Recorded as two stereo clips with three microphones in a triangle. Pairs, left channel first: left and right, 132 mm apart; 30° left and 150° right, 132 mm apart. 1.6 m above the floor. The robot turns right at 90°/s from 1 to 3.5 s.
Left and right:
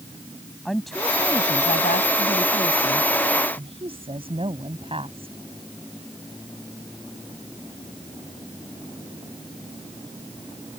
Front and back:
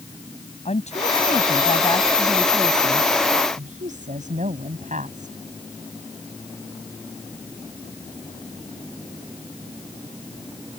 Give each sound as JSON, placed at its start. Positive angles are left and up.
{"t": 0.7, "sound": "a woman speaking", "azimuth_deg": 0}